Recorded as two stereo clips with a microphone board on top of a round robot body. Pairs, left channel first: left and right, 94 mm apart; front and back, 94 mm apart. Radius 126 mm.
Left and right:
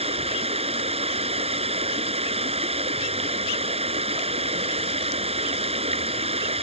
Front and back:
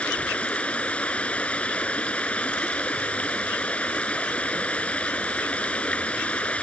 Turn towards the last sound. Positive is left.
turn(degrees=-80)